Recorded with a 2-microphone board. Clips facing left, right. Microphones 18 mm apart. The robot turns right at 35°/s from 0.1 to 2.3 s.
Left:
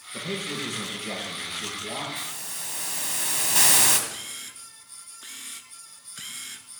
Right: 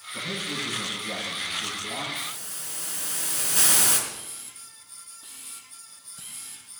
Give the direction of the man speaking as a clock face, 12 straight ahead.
10 o'clock.